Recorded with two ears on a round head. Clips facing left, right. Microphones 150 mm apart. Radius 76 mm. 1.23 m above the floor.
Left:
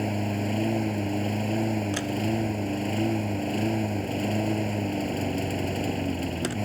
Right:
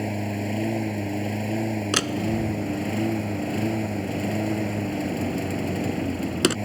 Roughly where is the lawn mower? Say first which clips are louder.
Even; centre.